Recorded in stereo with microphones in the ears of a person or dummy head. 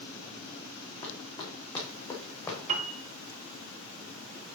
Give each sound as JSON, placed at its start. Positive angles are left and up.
{"t": 1.0, "sound": "running footsteps", "side_deg": 25, "distance_m": 5.0}
{"t": 2.7, "sound": "a piano", "side_deg": -40, "distance_m": 0.8}